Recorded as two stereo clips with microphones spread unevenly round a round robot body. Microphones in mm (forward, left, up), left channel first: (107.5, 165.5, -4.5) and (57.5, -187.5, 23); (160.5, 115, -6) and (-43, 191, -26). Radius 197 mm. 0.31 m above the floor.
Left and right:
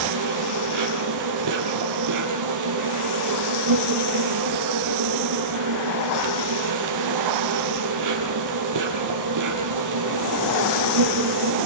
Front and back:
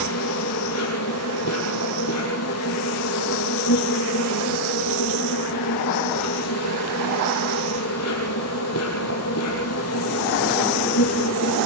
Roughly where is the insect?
Ahead right.